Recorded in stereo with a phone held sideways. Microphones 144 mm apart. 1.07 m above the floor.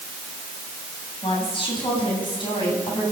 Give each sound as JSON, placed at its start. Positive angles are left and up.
{"t": 1.2, "sound": "a woman speaking", "side_deg": 35, "distance_m": 8.5}